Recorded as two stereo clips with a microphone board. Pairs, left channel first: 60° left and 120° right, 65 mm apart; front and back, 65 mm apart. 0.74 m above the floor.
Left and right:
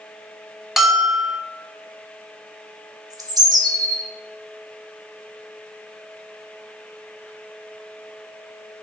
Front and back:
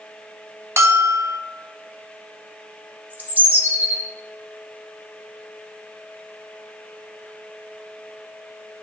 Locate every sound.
0.8 s a bell: 155° left, 0.6 m
3.1 s a bird: 120° right, 1.0 m